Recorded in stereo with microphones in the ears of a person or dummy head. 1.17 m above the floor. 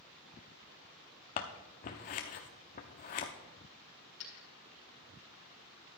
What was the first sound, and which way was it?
Scissors, 30° left (ahead or behind).